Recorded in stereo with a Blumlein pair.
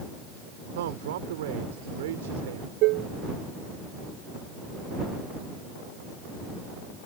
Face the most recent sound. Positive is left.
turn(degrees=-40)